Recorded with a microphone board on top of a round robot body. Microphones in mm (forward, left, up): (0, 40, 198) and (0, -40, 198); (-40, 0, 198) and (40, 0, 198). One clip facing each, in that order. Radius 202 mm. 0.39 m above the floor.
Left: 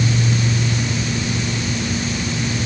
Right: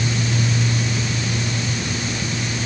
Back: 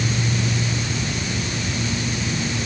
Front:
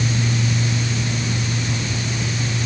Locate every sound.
Only background noise.